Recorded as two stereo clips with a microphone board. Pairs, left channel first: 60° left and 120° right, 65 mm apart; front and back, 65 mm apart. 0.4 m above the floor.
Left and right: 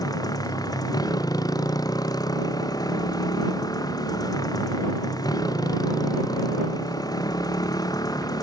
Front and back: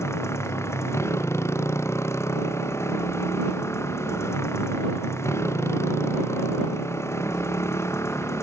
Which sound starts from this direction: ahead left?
A motorcycle, at 0.0 s.